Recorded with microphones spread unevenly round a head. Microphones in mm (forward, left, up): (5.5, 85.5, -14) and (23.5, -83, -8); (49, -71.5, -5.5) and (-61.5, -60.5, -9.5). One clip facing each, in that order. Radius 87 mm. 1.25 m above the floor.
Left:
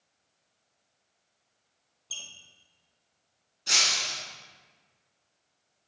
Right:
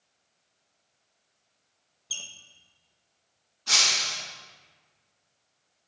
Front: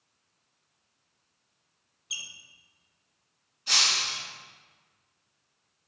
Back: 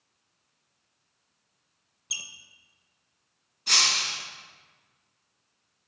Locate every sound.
2.1 s a squeak: 160° right, 0.6 m
3.7 s breaking glass: 155° left, 1.6 m